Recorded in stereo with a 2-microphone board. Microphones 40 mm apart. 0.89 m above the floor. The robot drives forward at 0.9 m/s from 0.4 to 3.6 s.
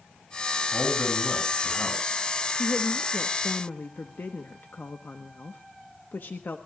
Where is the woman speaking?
50° left (ahead or behind), 1.3 m; by 6.6 s 60° left (ahead or behind), 1.2 m.